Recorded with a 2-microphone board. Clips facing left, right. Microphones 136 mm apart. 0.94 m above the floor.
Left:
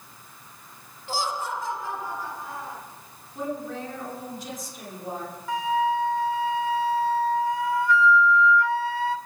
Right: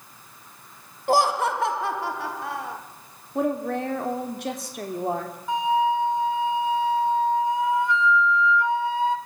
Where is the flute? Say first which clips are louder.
Right 2 dB; 20° right (ahead or behind), 1.0 m.